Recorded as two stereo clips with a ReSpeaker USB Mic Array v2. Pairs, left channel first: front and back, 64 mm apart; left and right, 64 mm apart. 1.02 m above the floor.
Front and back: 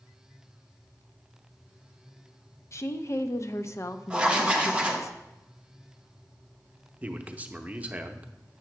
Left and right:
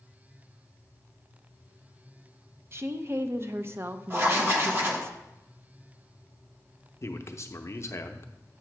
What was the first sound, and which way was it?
A woman speaking, 40° right.